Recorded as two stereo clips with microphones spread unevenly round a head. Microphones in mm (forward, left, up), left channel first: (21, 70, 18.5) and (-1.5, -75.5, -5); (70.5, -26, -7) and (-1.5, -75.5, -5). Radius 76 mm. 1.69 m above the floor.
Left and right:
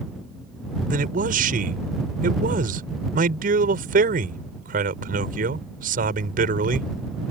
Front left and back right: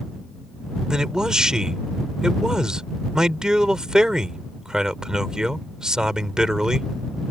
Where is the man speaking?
65° right.